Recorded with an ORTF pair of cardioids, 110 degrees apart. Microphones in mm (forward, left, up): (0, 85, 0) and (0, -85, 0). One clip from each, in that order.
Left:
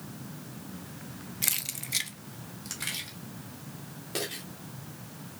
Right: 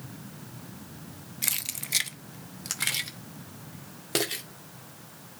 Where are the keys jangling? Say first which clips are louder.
Even; straight ahead, 0.7 m; by 4.4 s 55° right, 2.5 m.